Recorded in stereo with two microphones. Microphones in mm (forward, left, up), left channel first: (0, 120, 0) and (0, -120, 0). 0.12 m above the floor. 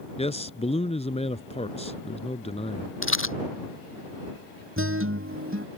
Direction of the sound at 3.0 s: 65° left (ahead or behind).